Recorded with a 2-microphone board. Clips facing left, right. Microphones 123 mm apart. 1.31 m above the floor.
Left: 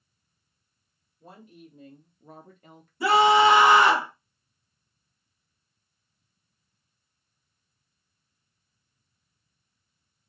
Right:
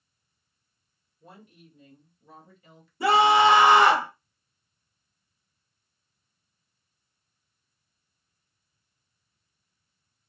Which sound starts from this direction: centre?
A scream, at 3.0 s.